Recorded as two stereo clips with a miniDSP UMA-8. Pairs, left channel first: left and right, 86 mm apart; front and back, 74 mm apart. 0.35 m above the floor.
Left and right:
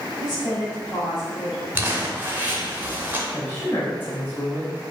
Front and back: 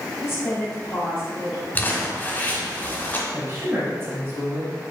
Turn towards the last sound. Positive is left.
turn(degrees=145)